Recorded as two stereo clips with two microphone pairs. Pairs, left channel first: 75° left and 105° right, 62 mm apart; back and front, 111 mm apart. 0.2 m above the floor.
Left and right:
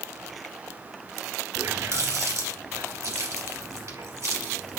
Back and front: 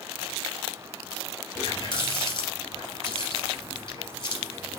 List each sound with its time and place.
1.6 s a running tap: 140° right, 2.5 m